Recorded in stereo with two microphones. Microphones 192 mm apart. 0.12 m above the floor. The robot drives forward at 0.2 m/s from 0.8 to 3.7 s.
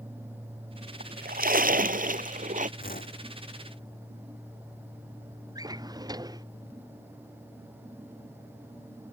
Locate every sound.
1.0 s a splash: 50° right (ahead or behind); by 2.7 s 40° right (ahead or behind)
2.8 s a whoosh: 50° left (ahead or behind); by 3.2 s 45° left (ahead or behind)
5.5 s a drawer: 20° right (ahead or behind)